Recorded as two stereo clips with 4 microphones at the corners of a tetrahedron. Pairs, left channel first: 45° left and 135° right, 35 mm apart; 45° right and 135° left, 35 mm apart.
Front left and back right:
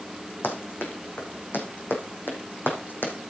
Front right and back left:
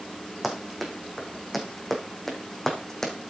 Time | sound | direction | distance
0.4 | running footsteps | 50° left | 3.5 m